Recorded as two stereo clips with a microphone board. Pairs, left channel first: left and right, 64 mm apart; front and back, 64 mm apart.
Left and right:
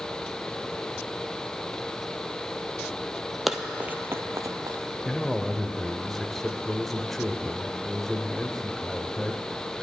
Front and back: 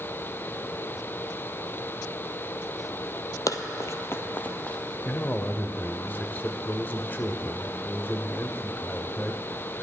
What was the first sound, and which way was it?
Running footsteps, straight ahead.